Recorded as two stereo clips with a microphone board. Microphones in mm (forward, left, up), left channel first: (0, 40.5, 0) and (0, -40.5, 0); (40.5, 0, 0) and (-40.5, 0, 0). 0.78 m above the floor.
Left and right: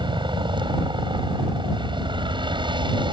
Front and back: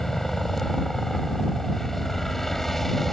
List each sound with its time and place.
0.0 s a helicopter: 85° right